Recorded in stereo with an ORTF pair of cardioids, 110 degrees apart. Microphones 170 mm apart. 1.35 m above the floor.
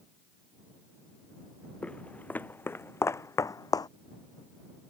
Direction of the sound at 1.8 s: 5° left.